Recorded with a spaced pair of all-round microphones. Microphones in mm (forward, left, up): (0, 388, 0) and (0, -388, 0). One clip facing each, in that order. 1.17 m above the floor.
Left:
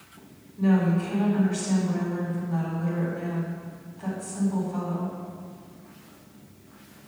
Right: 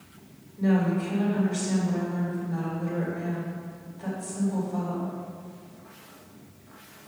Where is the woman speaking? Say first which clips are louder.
Left 1 dB; 45° left (ahead or behind), 4 m.